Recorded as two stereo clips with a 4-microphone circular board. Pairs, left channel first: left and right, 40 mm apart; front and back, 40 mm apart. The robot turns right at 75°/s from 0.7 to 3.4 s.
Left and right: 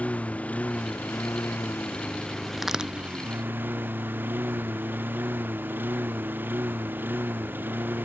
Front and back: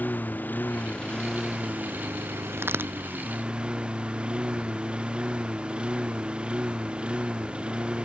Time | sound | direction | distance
0.0 | a lawn mower | 40° left | ?
2.6 | a crack | 175° right | ?